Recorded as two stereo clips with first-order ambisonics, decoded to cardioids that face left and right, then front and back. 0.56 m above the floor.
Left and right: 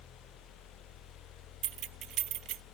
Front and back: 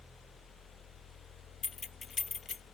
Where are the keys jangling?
65° right.